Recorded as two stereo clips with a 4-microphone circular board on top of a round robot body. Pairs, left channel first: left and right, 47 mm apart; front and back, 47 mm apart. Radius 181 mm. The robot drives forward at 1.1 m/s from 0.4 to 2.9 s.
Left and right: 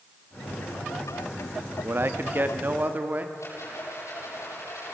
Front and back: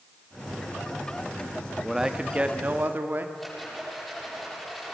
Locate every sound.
1.8 s a man speaking: 100° right, 1.7 m; by 3.2 s 140° right, 2 m
3.4 s a rattle: 90° left, 10 m